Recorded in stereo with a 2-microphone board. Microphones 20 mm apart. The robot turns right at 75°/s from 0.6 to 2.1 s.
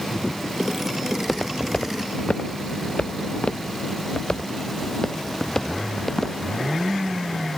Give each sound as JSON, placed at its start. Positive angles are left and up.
{"t": 1.1, "sound": "footsteps", "side_deg": 5}